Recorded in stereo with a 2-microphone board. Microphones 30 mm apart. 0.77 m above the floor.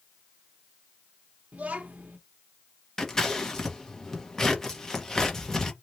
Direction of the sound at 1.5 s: 55° right (ahead or behind).